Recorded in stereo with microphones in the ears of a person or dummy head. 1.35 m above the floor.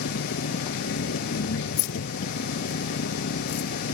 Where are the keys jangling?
75° left (ahead or behind).